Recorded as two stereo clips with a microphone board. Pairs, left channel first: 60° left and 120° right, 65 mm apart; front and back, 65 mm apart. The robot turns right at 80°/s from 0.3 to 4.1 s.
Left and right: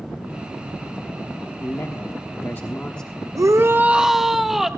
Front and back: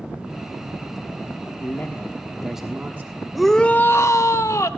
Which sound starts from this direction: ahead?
A man speaking, at 1.6 s.